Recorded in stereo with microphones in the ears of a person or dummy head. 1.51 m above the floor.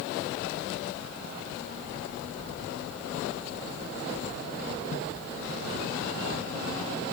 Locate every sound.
Only background noise.